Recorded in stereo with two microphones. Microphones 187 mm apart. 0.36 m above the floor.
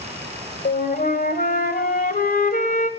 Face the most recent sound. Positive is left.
turn(degrees=55)  # may be behind; listen again after turning